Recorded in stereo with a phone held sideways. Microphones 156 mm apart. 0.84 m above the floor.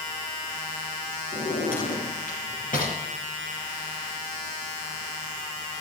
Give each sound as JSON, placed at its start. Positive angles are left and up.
{"t": 1.3, "sound": "a drawer", "side_deg": 60, "distance_m": 5.0}